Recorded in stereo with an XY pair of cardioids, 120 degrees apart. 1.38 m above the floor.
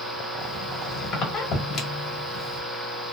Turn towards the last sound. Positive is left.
turn(degrees=55)